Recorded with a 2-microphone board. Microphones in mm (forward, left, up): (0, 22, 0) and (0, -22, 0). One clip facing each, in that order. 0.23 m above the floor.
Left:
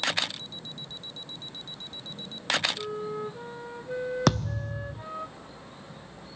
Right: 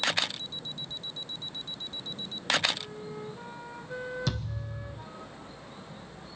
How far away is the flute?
About 2.5 m.